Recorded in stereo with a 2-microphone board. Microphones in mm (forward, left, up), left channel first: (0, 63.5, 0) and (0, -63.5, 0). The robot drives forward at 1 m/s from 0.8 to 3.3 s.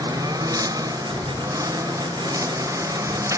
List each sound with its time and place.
0.0 s a lawn mower: 30° right (ahead or behind); by 3.4 s 25° right (ahead or behind)